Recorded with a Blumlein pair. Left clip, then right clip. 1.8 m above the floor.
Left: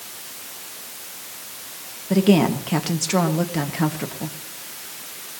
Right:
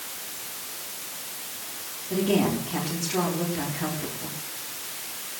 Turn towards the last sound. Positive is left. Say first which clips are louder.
# left 6 dB
turn(degrees=35)